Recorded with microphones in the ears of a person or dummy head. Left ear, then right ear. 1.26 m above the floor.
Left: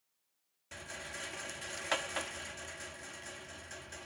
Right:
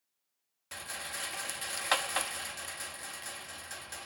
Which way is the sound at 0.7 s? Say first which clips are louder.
Right 4 dB; 35° right (ahead or behind).